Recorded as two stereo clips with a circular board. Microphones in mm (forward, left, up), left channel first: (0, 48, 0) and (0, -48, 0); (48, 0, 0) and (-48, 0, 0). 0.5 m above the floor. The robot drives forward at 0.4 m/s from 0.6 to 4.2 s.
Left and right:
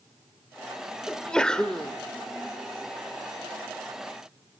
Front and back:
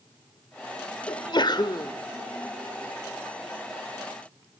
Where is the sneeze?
10° left, 1.4 m.